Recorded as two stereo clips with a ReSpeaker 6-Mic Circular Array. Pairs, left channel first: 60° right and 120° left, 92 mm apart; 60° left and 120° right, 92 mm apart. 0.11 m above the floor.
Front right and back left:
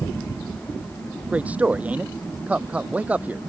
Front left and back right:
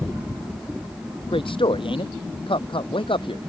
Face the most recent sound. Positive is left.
turn(degrees=45)